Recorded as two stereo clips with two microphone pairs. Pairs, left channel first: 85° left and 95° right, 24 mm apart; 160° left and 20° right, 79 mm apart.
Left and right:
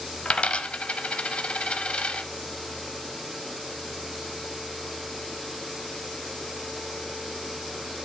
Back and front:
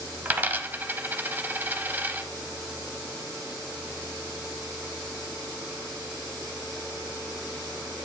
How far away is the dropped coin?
About 0.7 m.